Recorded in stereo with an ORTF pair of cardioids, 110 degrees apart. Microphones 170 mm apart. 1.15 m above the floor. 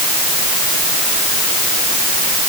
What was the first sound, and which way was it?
Only background noise.